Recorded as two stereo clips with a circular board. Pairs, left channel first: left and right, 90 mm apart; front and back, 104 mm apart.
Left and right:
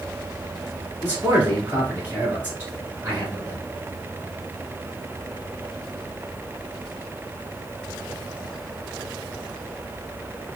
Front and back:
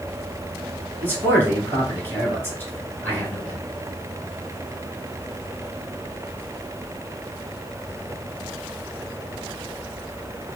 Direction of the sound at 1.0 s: 45° right.